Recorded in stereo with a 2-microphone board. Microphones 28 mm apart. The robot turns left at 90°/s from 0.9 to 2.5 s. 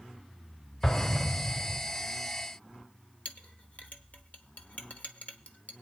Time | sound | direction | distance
0.8 | an explosion | 5° right | 2 m
3.2 | a clink | 65° left (ahead or behind) | 1.1 m